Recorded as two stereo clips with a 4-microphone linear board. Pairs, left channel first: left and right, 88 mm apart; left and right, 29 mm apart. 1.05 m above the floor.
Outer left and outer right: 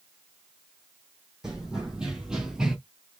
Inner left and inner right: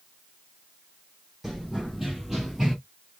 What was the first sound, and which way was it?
Running footsteps, 5° right (ahead or behind).